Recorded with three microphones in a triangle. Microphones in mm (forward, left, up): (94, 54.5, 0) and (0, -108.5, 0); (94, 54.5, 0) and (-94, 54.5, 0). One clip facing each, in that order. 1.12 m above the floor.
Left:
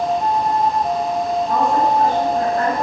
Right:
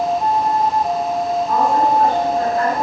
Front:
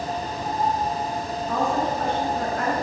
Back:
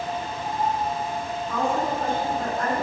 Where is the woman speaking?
15° left, 5.5 m.